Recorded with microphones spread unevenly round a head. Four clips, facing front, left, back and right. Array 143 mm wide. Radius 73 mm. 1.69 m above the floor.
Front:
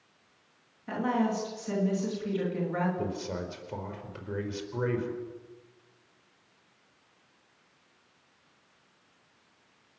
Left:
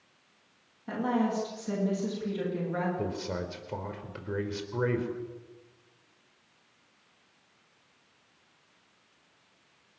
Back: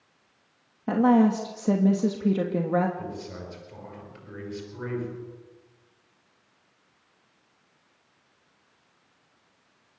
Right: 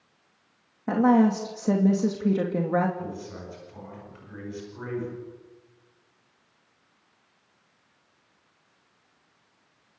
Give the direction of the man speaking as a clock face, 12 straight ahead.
10 o'clock.